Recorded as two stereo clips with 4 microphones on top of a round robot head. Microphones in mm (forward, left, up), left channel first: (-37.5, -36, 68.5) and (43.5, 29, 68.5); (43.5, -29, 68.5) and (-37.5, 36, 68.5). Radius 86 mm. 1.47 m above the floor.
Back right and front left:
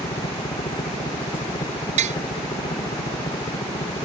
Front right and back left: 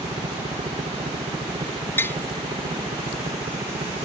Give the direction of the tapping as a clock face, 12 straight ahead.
11 o'clock.